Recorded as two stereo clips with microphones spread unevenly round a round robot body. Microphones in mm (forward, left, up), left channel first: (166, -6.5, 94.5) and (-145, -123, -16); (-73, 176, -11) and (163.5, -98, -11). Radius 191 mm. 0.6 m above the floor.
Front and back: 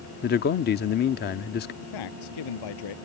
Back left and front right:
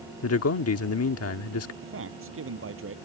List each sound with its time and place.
0.2 s a man speaking: 90° left
1.8 s a man speaking: 5° left